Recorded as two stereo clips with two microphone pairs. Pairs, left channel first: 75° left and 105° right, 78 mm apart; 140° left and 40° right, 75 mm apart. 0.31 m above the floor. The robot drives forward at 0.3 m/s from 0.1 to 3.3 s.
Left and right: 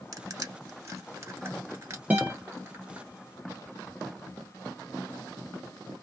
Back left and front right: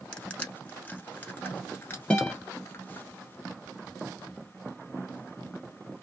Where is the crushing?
145° right, 0.8 m; by 3.1 s 165° right, 1.6 m.